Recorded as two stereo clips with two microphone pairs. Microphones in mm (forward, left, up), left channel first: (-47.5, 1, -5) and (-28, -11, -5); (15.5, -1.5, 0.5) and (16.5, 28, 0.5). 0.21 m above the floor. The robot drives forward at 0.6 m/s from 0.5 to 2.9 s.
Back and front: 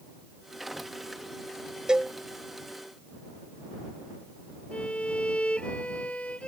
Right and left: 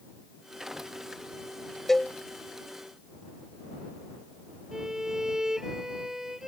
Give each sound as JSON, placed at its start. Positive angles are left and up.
{"t": 1.9, "sound": "a cowbell", "azimuth_deg": -15}
{"t": 4.7, "sound": "a violin", "azimuth_deg": 160}